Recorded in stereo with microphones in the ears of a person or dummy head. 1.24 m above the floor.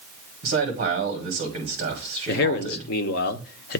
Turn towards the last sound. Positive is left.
turn(degrees=60)  # may be behind; listen again after turning